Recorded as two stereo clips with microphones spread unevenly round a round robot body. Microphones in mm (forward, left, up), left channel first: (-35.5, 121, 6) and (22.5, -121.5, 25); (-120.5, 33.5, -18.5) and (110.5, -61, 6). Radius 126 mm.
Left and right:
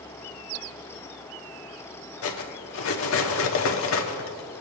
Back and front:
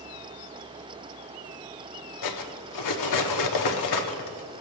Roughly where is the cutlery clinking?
Behind left.